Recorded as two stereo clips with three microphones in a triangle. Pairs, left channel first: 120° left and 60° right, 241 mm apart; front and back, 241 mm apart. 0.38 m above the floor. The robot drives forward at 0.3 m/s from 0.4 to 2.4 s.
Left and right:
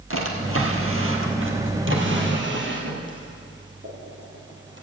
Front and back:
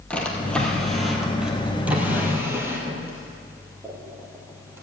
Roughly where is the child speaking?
No child speaking in this recording.